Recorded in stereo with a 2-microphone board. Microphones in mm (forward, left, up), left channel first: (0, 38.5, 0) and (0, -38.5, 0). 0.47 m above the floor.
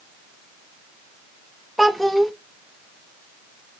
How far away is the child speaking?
About 0.5 m.